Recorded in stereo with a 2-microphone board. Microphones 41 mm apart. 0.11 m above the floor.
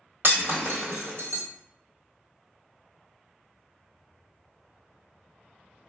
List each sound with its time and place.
0.2 s breaking glass: 60° right (ahead or behind), 1.4 m